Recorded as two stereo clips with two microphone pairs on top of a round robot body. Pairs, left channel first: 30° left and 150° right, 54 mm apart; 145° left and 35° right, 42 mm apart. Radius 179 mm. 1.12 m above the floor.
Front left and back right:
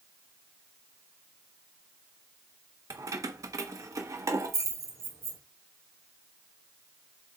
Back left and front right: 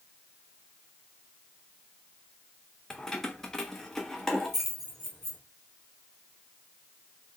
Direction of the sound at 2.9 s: 135° right.